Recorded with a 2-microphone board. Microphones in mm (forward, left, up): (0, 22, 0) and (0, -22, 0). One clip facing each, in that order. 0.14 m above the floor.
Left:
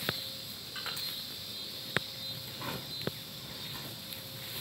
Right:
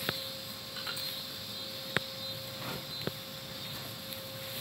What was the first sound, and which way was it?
Crushing, 60° left (ahead or behind).